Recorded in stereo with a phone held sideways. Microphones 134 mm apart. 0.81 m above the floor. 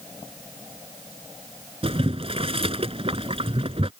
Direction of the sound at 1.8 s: 45° right (ahead or behind).